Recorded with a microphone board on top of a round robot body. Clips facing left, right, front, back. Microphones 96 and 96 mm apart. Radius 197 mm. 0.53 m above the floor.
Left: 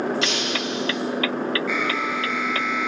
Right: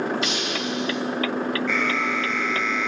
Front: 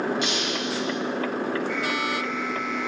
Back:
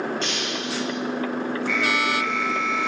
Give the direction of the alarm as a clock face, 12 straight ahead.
6 o'clock.